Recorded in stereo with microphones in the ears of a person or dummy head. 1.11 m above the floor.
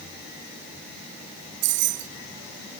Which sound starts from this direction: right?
Keys jangling, at 1.6 s.